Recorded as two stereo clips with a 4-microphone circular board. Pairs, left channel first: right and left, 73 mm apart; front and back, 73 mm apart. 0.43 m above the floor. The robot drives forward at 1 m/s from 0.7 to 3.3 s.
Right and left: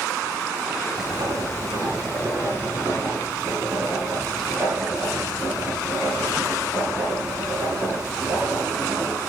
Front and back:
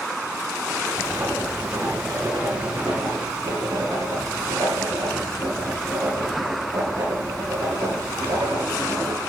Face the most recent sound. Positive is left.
turn(degrees=155)